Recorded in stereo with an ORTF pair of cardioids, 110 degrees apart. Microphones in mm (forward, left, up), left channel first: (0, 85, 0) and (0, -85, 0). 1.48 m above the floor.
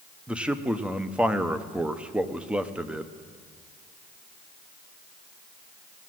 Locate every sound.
0.3 s a man speaking: 5° right, 0.8 m